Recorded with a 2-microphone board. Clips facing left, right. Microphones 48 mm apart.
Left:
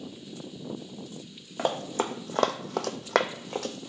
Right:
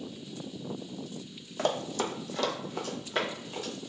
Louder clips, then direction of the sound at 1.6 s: Left 2 dB; 10° left (ahead or behind).